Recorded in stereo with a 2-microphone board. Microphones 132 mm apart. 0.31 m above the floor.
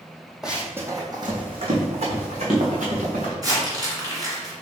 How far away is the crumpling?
About 2.0 m.